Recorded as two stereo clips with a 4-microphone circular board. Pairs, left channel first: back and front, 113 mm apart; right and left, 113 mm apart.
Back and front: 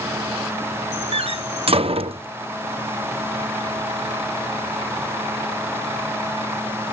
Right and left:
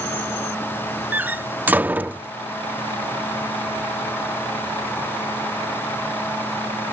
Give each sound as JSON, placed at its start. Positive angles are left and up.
{"t": 1.1, "sound": "a door slam", "azimuth_deg": 20}